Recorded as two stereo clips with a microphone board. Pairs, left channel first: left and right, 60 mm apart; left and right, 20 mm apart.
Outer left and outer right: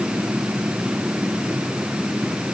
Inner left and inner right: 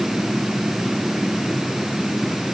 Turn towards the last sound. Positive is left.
No sound to turn to.